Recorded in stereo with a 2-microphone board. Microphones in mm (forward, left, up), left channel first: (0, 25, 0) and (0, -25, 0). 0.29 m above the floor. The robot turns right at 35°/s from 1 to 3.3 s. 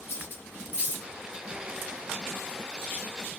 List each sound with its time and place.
0.1 s cutlery clinking: 50° left (ahead or behind), 1.9 m